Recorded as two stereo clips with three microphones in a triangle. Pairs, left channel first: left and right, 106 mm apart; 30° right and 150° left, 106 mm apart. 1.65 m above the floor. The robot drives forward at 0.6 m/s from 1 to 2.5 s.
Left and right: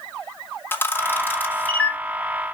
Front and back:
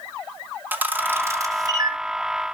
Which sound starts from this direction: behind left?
A camera shutter, at 0.7 s.